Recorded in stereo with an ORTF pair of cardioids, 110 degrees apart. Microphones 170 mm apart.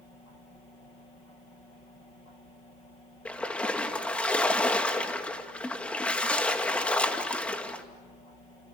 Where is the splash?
10° left, 2 m.